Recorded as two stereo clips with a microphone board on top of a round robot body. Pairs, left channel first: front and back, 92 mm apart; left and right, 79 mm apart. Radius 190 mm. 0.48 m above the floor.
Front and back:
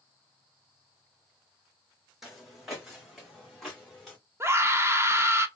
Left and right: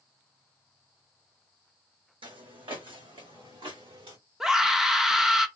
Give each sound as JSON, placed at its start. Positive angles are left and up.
{"t": 2.2, "sound": "footsteps", "azimuth_deg": -90, "distance_m": 1.2}
{"t": 4.4, "sound": "a scream", "azimuth_deg": -165, "distance_m": 1.0}